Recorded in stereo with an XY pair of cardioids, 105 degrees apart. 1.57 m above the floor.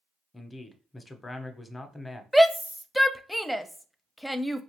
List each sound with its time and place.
0.3 s a man speaking: 20° left, 0.8 m
2.3 s a shout: straight ahead, 0.6 m